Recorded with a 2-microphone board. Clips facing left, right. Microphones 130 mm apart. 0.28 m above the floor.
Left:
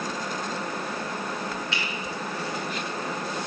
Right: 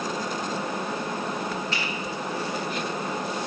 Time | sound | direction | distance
1.7 | a finger snap | 45° right (ahead or behind) | 2.5 m